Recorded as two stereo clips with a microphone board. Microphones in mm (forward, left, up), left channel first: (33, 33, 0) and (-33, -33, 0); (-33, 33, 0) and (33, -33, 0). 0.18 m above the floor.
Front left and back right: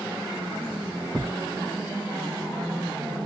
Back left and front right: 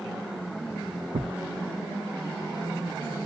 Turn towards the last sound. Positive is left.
turn(degrees=-45)